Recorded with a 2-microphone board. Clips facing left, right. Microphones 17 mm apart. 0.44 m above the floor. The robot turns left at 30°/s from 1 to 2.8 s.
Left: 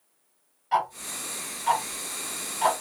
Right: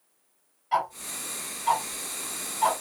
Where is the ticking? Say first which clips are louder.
Left 1 dB; 5° left (ahead or behind), 2 m; by 2.8 s 55° left (ahead or behind), 2 m.